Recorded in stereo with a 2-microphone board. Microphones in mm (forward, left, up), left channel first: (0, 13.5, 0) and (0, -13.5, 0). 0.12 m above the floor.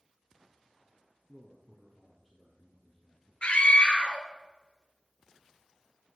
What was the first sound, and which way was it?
A man speaking, 5° right (ahead or behind).